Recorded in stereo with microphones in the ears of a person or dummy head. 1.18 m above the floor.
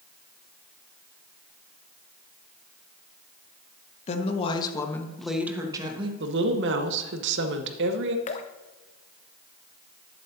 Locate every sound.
4.1 s a woman speaking: 45° left (ahead or behind), 1.3 m; by 6.1 s 20° right (ahead or behind), 1.3 m
6.2 s a woman speaking: 60° right (ahead or behind), 1.2 m
8.3 s dripping: 30° left (ahead or behind), 0.7 m